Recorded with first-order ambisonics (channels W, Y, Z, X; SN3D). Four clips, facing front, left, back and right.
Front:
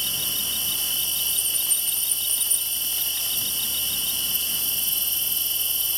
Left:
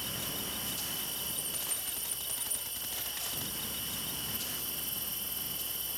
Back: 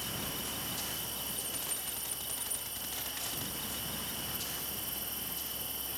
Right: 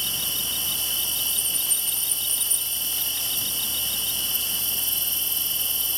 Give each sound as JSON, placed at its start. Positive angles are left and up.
{"t": 0.0, "sound": "an insect", "azimuth_deg": -40}